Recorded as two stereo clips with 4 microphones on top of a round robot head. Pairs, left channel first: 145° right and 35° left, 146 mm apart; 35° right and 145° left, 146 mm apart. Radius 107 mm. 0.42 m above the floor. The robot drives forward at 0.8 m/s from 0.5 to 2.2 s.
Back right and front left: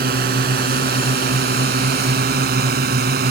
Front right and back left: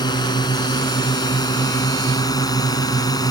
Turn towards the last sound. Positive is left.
turn(degrees=30)